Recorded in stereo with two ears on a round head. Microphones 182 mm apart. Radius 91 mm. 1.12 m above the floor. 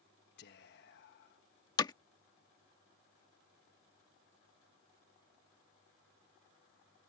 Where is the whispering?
55° left (ahead or behind).